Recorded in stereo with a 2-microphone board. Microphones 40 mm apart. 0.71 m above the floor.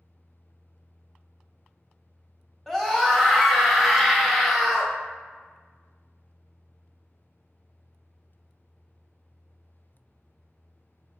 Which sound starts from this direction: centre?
A scream, at 2.7 s.